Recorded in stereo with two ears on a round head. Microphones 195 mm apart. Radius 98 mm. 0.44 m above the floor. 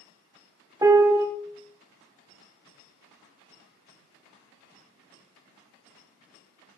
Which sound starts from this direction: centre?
A piano, at 0.8 s.